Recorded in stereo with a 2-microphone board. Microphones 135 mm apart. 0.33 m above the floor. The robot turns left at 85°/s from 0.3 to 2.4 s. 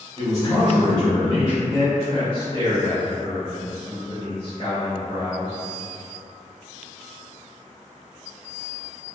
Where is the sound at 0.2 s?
140° left, 1.1 m; by 1.6 s 35° left, 1.1 m.